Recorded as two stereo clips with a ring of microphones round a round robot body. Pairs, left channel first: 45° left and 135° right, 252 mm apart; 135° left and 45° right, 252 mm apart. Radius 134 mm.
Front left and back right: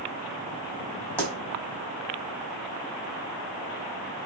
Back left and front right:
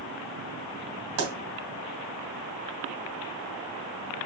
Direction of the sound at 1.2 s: 35° right.